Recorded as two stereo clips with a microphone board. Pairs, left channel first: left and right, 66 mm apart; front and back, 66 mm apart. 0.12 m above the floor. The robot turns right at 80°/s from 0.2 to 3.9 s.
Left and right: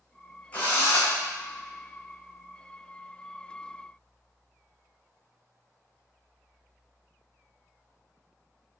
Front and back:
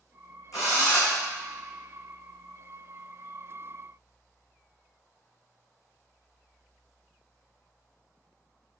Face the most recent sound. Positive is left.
turn(degrees=-70)